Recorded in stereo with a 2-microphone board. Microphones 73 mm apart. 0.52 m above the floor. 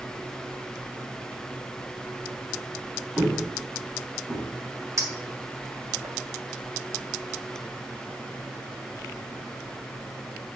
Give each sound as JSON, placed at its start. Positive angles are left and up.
{"t": 3.2, "sound": "footsteps", "side_deg": -5, "distance_m": 4.0}
{"t": 5.0, "sound": "a clink", "side_deg": -45, "distance_m": 1.7}